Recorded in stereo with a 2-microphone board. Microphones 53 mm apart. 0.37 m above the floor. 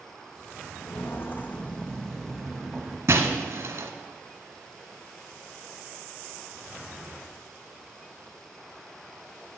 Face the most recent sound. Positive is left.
turn(degrees=-65)  # may be behind; listen again after turning